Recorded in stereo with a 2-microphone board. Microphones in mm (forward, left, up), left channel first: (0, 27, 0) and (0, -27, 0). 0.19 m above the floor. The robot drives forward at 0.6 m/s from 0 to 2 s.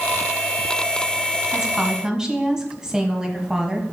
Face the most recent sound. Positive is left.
turn(degrees=-15)  # may be behind; listen again after turning